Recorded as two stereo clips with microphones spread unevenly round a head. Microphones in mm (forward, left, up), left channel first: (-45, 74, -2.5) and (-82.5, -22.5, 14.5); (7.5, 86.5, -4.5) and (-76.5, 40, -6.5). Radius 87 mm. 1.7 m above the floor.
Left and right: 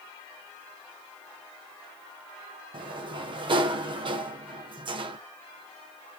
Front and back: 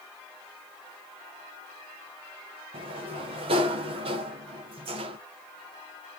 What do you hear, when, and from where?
2.7 s a sliding door: 130° right, 1.1 m